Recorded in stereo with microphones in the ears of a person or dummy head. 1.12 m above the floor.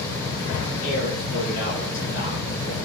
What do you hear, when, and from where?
0.8 s a man speaking: 60° left (ahead or behind), 8.5 m; by 2.8 s 65° left (ahead or behind), 8 m